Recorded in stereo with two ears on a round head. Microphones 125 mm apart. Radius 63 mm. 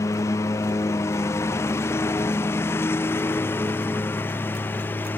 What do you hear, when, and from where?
0.0 s a lawn mower: 20° left (ahead or behind); by 5.2 s 15° left (ahead or behind)